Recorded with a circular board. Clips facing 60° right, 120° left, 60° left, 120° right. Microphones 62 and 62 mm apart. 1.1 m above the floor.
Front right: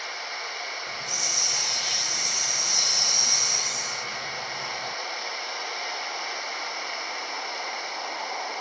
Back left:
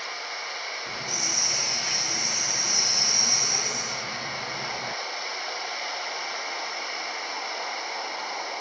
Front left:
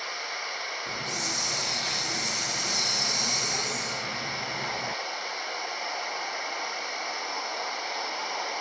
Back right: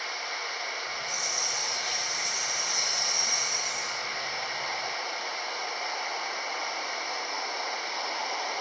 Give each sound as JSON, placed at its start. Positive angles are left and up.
{"t": 0.9, "sound": "a hiss", "azimuth_deg": 65}